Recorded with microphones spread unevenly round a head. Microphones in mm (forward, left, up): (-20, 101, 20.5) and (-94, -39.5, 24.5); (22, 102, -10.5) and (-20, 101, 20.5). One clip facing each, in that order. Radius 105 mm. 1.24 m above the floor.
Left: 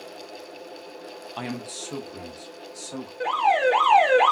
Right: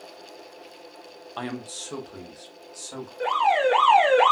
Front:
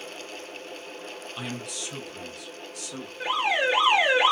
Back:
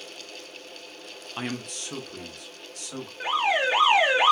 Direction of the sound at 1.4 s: 140° left.